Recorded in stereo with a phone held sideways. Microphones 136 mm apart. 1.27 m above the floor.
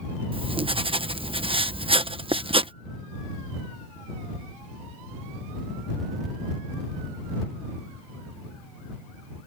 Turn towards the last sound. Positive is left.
turn(degrees=-40)  # may be behind; listen again after turning